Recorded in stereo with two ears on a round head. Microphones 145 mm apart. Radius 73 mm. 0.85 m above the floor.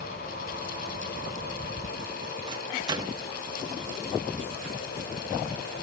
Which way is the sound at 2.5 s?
25° right (ahead or behind).